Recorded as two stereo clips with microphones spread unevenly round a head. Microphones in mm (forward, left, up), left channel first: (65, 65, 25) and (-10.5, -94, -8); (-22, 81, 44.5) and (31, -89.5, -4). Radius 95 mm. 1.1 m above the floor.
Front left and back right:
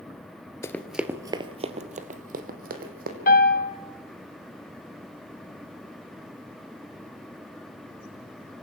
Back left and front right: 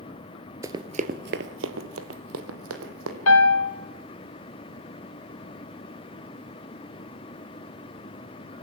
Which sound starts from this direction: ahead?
Running footsteps, at 0.6 s.